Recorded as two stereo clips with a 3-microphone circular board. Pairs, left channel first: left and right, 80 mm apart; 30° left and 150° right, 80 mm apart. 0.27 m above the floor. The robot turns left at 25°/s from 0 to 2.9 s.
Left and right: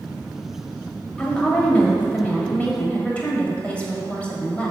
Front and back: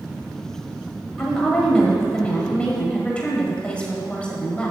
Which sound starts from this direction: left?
A woman speaking, at 1.2 s.